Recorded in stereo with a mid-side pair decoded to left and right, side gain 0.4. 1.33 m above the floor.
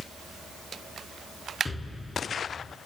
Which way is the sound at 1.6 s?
25° left.